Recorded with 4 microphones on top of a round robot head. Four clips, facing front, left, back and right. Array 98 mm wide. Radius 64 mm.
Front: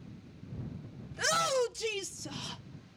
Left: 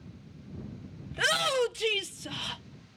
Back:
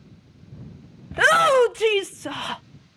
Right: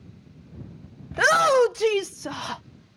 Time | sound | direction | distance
1.1 | a shout | 145° right | ?